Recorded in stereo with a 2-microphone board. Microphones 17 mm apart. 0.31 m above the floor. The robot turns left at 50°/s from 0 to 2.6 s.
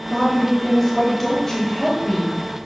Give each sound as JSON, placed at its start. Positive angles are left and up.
{"t": 0.1, "sound": "a woman speaking", "side_deg": 5, "distance_m": 0.9}